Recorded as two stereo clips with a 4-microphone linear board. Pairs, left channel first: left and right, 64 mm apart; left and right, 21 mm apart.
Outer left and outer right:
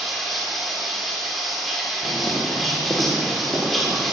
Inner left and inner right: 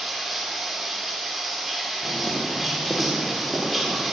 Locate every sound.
0.0 s running water: centre (ahead or behind), 1.7 m
2.0 s footsteps: 5° left (ahead or behind), 1.9 m; by 4.0 s 20° right (ahead or behind), 4.5 m